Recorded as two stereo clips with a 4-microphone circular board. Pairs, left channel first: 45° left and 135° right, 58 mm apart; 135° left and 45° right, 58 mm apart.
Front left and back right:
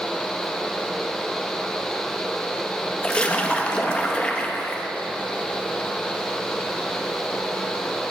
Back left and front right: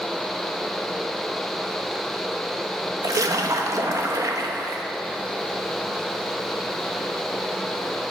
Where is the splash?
25° right, 0.8 m.